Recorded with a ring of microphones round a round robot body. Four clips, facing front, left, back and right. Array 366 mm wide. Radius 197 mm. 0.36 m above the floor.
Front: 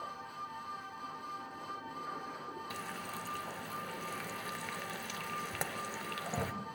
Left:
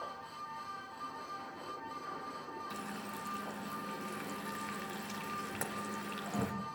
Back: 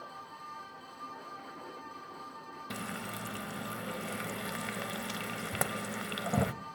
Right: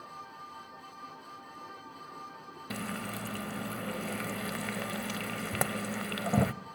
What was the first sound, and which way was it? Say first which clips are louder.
Frying: right 5 dB, back 2 dB; 115° right.